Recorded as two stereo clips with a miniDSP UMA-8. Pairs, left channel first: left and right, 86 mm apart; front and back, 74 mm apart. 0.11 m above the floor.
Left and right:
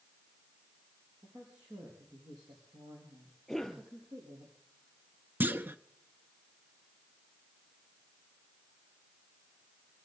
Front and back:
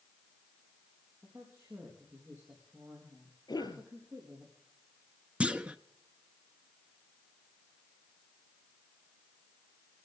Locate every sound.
1.2 s a woman speaking: 125° right, 5 m
3.5 s a cough: straight ahead, 3 m
5.4 s a clunk: 125° right, 0.6 m